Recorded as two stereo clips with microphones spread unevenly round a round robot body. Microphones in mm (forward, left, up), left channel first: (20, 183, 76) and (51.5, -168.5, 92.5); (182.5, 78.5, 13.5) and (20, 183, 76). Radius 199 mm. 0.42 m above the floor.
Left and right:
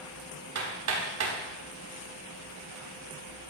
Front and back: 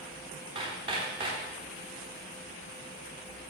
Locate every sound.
0.6 s hammering: 135° right, 4 m